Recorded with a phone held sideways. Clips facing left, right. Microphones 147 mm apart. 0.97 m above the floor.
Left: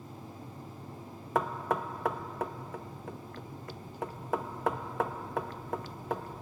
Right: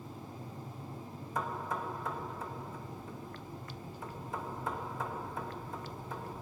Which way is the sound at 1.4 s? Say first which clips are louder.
Left 6 dB; 70° left (ahead or behind).